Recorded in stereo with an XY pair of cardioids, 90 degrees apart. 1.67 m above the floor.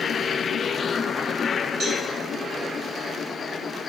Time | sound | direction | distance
1.8 | a cowbell | 60° right | 2 m